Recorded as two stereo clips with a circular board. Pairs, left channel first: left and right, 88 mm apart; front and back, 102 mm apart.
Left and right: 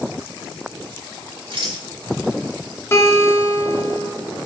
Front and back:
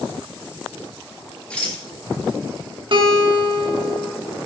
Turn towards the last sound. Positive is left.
turn(degrees=150)